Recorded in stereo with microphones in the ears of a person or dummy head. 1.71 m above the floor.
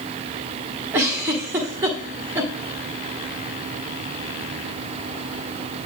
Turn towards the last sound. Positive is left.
turn(degrees=-10)  # may be behind; listen again after turning